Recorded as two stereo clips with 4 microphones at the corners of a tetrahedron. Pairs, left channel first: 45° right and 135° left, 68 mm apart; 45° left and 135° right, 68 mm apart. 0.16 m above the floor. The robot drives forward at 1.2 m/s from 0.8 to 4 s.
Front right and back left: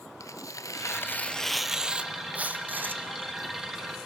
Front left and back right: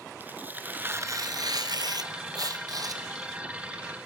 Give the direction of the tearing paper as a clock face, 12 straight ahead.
2 o'clock.